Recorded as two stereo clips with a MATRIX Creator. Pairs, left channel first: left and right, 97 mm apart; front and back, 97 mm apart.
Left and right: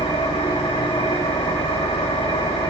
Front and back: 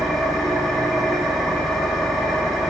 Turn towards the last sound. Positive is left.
turn(degrees=90)